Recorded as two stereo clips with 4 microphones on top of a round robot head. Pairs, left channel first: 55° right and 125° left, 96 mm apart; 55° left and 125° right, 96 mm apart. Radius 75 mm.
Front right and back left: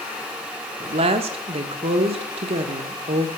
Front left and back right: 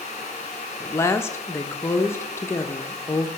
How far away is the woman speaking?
About 1.1 m.